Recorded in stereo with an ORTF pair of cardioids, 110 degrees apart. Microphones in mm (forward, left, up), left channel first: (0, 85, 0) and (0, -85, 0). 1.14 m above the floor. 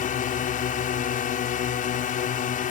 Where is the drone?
55° left.